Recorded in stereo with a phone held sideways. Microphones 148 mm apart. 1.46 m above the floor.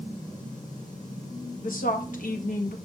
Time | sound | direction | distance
1.6 | a woman speaking | 70° left (ahead or behind) | 1.4 m